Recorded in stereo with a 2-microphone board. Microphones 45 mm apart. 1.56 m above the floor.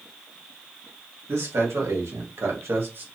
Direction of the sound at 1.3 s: 75° right (ahead or behind).